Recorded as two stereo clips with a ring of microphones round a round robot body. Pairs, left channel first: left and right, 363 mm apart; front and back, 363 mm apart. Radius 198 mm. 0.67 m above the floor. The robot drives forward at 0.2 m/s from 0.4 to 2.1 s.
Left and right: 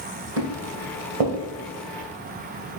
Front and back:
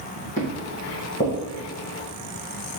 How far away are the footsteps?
About 1.5 m.